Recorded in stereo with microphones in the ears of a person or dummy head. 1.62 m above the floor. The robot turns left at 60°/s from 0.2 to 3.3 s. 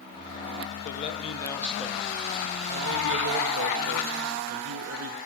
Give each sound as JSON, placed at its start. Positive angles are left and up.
{"t": 0.8, "sound": "a man speaking", "azimuth_deg": 60, "distance_m": 1.6}